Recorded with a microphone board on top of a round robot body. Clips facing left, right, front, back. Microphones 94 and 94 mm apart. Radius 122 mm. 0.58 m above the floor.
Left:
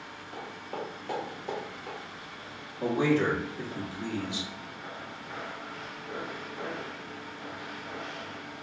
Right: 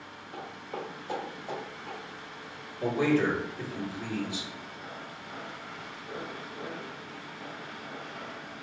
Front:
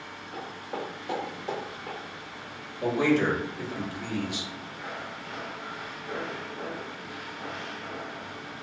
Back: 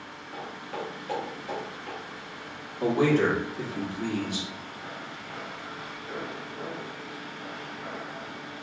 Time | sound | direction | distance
0.3 | footsteps | 90° left | 0.7 m
2.8 | a man speaking | 150° left | 1.4 m